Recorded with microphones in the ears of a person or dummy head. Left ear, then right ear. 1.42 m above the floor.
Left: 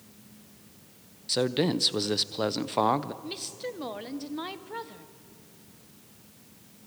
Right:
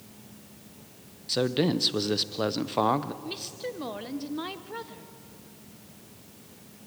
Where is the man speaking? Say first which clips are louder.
Even; 15° left (ahead or behind), 0.7 m.